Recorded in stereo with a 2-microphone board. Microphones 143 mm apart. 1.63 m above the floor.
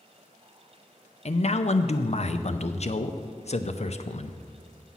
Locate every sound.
1.2 s a man speaking: 50° left (ahead or behind), 0.5 m